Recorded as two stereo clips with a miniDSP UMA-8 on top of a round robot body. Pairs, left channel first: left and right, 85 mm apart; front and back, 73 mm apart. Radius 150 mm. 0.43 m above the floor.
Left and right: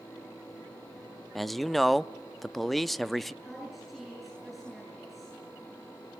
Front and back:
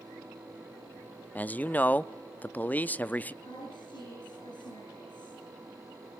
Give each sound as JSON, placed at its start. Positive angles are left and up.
{"t": 1.4, "sound": "a man speaking", "azimuth_deg": 5, "distance_m": 0.7}
{"t": 3.4, "sound": "a woman speaking", "azimuth_deg": 0, "distance_m": 7.5}